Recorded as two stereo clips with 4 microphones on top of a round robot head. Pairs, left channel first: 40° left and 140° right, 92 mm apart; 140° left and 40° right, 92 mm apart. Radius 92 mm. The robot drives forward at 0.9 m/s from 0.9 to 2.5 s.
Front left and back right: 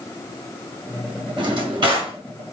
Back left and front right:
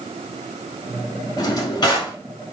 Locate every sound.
1.4 s a drawer: 175° right, 1.4 m